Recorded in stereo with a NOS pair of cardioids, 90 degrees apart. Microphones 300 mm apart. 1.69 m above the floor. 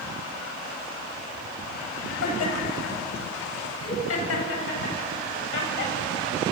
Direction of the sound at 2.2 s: 55° left.